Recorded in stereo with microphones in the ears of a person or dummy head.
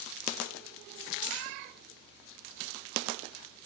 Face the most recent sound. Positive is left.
turn(degrees=-40)  # may be behind; listen again after turning